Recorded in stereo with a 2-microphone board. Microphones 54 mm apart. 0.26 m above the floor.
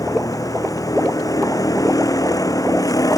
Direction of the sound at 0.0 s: 80° left.